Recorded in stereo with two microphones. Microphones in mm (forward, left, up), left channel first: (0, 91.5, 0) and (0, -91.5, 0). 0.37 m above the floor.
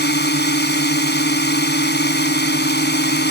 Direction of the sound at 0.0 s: 65° left (ahead or behind).